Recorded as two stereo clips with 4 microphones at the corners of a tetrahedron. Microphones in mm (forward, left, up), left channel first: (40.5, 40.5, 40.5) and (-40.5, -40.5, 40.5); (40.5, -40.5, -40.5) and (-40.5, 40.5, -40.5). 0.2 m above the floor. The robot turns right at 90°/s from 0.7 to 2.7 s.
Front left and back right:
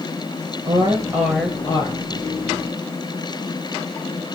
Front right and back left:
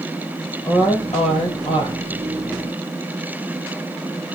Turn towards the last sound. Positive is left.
turn(degrees=70)